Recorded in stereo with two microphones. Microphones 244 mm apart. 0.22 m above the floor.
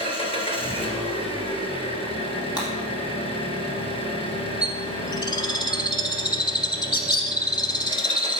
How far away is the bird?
About 0.7 m.